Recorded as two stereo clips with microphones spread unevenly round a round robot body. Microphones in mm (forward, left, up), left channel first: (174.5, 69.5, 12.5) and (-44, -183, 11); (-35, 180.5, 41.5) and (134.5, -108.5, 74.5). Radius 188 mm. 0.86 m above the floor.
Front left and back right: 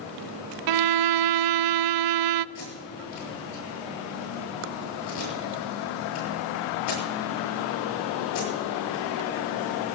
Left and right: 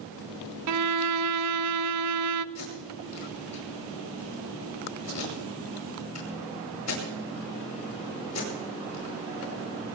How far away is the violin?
About 0.5 m.